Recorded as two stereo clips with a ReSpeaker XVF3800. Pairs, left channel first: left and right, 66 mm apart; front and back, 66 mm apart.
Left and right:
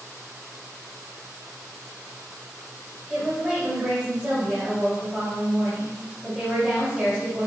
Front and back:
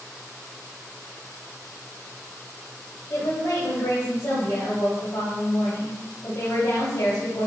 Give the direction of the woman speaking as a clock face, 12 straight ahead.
1 o'clock.